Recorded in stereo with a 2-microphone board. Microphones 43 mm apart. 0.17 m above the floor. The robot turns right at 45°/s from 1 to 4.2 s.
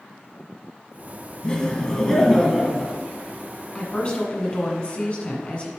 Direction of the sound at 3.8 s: 20° left (ahead or behind).